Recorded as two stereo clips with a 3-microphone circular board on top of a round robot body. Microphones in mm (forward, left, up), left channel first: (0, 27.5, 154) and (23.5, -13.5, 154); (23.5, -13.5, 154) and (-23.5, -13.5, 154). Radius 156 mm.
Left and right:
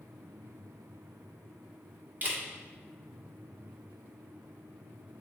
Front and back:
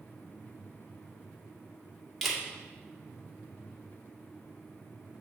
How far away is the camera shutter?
About 1.8 m.